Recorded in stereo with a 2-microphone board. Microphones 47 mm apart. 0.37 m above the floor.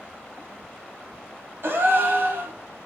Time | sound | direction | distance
1.6 | a gasp | 55° right (ahead or behind) | 0.9 m